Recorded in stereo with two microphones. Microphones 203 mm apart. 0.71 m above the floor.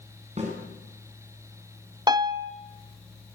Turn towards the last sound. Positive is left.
turn(degrees=-20)  # may be behind; listen again after turning